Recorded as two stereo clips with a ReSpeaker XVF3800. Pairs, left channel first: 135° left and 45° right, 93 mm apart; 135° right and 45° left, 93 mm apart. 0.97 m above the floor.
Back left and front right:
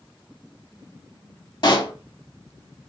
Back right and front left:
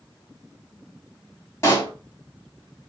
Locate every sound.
1.6 s a pop: 165° left, 1.9 m